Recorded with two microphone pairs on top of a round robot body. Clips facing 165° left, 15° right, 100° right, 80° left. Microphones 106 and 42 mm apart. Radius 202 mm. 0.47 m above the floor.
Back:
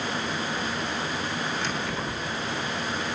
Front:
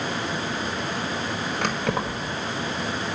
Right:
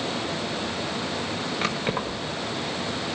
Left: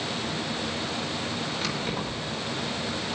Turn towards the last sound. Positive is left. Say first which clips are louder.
# front 4 dB, right 3 dB
turn(degrees=-50)